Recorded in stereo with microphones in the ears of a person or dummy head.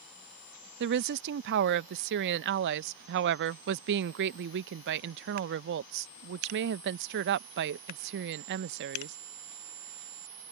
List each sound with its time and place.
0.8 s a woman speaking: 70° right (ahead or behind)